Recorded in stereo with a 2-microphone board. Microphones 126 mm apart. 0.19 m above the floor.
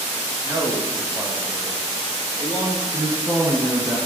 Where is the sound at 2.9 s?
25° right (ahead or behind), 2.5 m.